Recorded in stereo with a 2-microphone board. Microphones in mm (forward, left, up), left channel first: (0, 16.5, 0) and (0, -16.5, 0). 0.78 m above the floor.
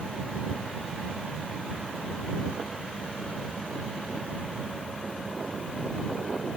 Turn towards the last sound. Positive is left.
No sound to turn to.